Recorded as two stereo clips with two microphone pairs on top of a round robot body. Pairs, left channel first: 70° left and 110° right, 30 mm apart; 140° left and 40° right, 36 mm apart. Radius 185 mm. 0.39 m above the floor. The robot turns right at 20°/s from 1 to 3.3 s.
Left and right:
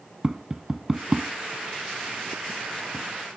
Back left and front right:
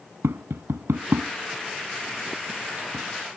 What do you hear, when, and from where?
0.2 s tapping: 30° right; by 3.0 s 10° left